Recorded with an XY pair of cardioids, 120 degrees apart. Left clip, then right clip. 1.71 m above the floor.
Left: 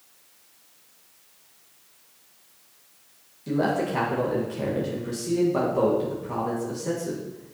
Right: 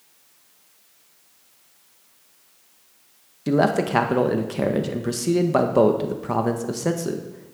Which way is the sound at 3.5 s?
65° right.